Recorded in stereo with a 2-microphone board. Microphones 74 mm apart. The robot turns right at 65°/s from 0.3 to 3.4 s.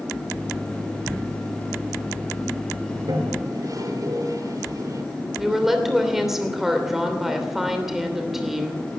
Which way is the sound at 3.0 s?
55° right (ahead or behind).